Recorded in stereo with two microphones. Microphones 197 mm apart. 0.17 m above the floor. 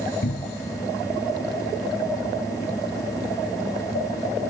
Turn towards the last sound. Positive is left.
turn(degrees=60)  # may be behind; listen again after turning